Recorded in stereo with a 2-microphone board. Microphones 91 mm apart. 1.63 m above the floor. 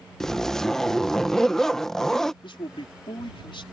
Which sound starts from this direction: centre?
A zipper, at 0.2 s.